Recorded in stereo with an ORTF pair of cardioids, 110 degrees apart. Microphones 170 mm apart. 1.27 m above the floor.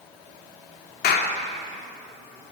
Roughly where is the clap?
Left.